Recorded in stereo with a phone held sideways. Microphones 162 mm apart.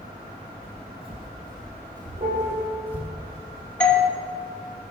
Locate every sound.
0.6 s footsteps: 45° right (ahead or behind), 2.5 m; by 3.1 s 10° right (ahead or behind), 4.5 m
2.2 s a piano: 45° right (ahead or behind), 4 m
3.8 s a doorbell: 5° left (ahead or behind), 2.5 m